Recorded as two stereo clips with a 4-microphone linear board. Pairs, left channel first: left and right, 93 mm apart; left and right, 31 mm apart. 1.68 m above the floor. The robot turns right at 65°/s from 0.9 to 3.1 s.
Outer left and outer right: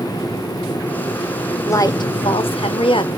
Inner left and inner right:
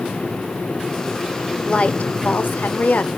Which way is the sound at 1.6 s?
30° left.